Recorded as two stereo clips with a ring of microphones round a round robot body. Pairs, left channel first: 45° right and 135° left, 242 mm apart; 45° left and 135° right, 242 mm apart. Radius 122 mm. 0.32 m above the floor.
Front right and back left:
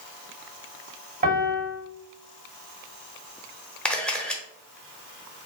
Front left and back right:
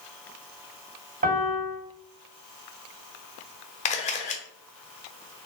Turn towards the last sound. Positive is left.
turn(degrees=35)